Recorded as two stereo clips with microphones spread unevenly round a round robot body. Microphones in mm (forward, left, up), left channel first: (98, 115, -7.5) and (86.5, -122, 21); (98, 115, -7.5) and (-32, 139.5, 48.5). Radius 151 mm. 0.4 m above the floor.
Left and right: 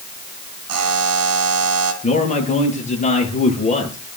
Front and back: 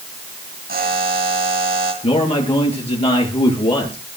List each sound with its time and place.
0.7 s a buzzer: 135° right, 2.5 m
2.0 s a man speaking: 30° left, 9 m